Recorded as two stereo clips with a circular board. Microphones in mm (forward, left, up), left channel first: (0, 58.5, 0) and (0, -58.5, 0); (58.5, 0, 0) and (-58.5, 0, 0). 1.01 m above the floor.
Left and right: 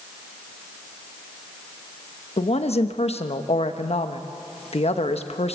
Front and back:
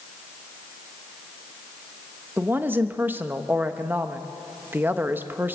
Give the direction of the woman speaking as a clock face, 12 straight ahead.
8 o'clock.